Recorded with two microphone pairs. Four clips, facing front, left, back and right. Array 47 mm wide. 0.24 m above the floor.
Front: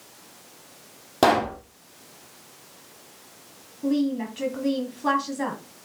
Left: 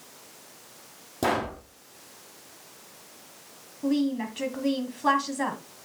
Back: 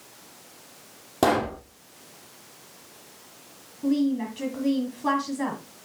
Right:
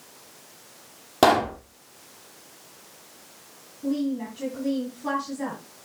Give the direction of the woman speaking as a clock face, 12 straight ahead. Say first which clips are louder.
Left 1 dB, even; 9 o'clock.